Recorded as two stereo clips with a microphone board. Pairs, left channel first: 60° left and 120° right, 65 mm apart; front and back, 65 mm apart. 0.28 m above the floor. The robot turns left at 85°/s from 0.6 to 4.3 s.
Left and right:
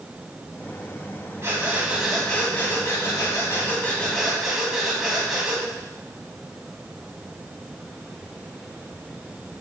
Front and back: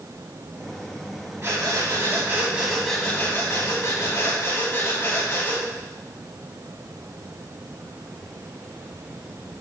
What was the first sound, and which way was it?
Breathing, 145° right.